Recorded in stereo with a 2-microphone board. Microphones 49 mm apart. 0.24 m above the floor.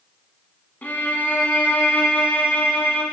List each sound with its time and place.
0.8 s a violin: 40° left (ahead or behind), 0.8 m